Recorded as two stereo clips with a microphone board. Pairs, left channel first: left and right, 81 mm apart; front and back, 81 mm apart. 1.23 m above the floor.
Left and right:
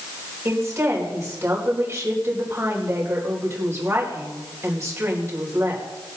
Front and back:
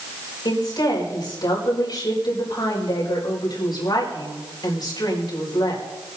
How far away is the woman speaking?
About 4.5 m.